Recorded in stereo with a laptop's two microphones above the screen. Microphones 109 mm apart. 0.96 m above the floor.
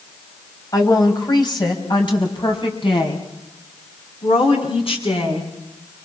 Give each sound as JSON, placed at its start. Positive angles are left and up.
{"t": 0.7, "sound": "a woman speaking", "side_deg": 35, "distance_m": 6.0}